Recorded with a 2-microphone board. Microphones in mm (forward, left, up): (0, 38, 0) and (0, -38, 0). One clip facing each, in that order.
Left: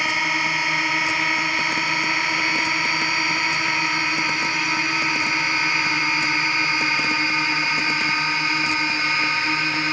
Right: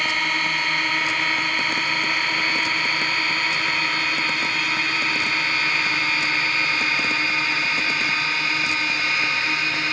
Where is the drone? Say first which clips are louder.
Left 1 dB; 10° left (ahead or behind); by 9.9 s 20° left (ahead or behind).